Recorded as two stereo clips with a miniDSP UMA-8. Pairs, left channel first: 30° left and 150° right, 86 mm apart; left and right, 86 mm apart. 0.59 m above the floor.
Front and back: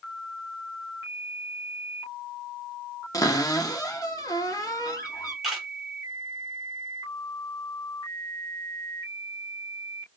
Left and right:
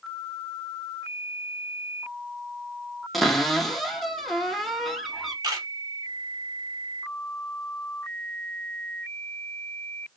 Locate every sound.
3.1 s a cupboard door: straight ahead, 0.6 m
5.4 s a camera shutter: 60° right, 1.5 m